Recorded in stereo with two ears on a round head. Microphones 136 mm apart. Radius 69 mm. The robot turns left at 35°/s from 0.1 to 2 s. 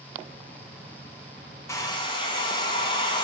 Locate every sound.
1.7 s a hair dryer: 20° left (ahead or behind), 1.2 m; by 3.2 s 30° left (ahead or behind), 1.2 m